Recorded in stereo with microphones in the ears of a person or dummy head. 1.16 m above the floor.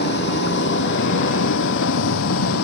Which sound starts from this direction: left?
A vehicle, at 0.0 s.